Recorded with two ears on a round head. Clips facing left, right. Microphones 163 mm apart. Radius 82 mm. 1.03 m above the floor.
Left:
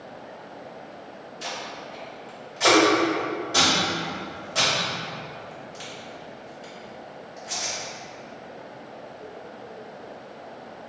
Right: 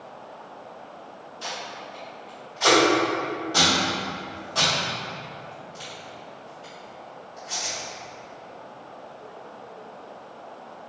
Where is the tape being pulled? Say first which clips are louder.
Even; 20° left (ahead or behind), 1.9 m.